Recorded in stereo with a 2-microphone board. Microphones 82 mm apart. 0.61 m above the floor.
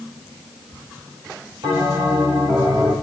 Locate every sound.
1.6 s a bell: 70° right (ahead or behind), 6.5 m